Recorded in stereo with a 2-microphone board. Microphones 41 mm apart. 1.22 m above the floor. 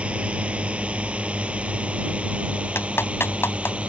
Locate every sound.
0.0 s a drone: 30° right (ahead or behind)
2.8 s a clap: 75° left (ahead or behind)